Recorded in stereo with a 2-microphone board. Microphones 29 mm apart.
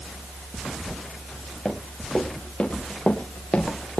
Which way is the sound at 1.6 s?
30° left (ahead or behind).